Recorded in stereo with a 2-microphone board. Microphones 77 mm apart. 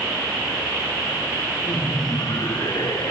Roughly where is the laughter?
Left.